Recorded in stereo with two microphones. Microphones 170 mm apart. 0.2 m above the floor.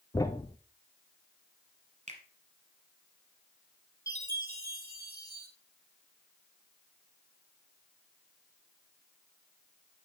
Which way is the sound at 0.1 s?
20° left (ahead or behind).